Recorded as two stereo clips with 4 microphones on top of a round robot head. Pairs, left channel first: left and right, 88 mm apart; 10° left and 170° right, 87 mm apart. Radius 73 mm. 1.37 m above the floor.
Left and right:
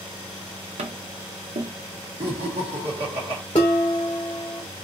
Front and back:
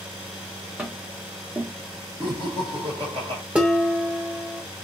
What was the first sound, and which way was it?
Tapping, 90° right.